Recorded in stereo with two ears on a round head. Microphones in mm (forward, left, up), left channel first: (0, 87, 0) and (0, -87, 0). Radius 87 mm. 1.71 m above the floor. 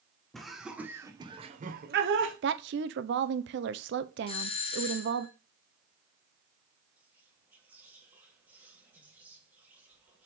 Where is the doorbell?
30° left (ahead or behind), 0.9 m.